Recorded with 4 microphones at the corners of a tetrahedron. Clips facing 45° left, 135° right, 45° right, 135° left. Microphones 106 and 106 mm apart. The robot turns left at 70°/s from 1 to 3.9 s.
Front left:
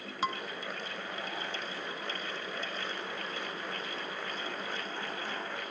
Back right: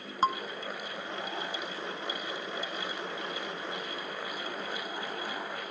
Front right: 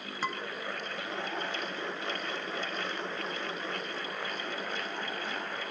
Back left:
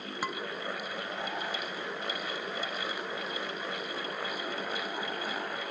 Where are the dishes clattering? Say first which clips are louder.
Back right 6 dB, front right 1 dB; 155° right, 0.9 m.